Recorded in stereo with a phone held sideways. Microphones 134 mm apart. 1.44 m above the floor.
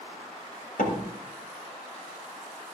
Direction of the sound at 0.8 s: 80° left.